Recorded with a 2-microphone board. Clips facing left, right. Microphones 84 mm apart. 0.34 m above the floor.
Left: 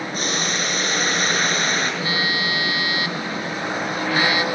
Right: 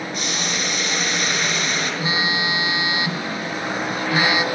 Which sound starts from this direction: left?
Boiling, at 0.1 s.